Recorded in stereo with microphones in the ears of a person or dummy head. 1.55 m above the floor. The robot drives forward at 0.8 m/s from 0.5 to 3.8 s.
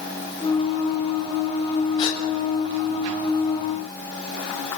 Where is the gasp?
30° left (ahead or behind), 7 m; by 2.2 s 35° left (ahead or behind), 7 m.